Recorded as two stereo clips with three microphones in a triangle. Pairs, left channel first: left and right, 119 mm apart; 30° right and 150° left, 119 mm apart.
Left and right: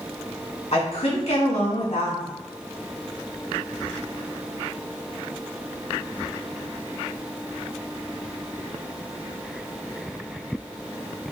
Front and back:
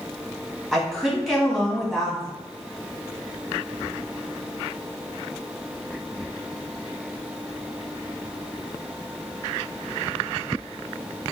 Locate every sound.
0.7 s a woman speaking: 60° left, 1.4 m